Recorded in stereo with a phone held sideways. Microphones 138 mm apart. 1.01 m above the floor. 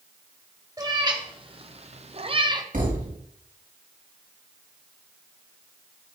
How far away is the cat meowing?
About 1.4 m.